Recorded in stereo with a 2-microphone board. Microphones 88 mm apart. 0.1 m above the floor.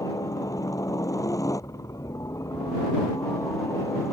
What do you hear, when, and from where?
0.0 s a helicopter: 40° left (ahead or behind); by 4.1 s 30° left (ahead or behind)